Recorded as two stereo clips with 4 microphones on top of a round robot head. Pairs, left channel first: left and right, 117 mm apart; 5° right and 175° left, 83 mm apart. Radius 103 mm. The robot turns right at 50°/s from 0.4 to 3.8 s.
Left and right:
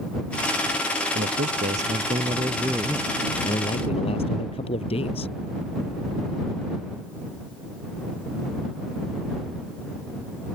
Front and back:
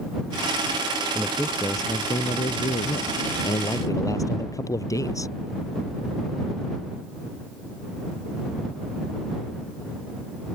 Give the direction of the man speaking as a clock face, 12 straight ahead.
3 o'clock.